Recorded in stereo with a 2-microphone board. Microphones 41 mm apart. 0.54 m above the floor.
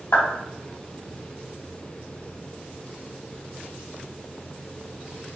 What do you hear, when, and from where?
0.1 s a clap: 70° left (ahead or behind), 3.5 m